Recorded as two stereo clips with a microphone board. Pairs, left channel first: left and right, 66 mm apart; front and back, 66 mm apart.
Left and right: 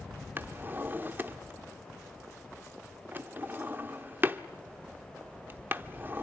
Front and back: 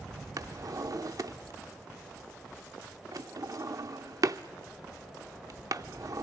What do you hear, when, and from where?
0.4 s a drawer: 145° right, 0.8 m